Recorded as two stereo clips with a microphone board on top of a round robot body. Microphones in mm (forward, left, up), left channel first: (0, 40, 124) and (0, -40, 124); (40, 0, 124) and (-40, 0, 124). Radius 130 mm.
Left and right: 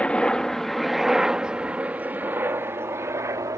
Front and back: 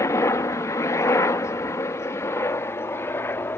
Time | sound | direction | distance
0.0 | a helicopter | 20° left | ?